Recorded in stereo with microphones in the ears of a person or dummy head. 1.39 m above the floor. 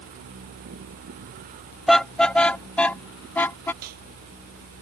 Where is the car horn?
Centre (ahead or behind); by 3.7 s 10° left (ahead or behind).